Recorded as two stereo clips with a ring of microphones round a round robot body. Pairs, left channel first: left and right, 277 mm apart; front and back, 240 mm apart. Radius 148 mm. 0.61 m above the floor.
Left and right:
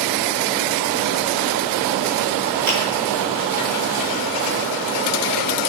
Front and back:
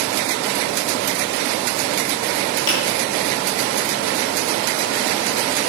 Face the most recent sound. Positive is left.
turn(degrees=-30)